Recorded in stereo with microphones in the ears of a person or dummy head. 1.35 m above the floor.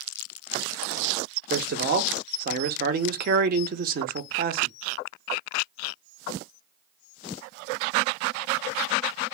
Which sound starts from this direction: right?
A man speaking, at 1.5 s.